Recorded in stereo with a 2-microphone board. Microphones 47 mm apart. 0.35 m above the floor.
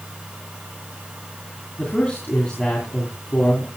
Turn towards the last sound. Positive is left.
turn(degrees=25)  # may be behind; listen again after turning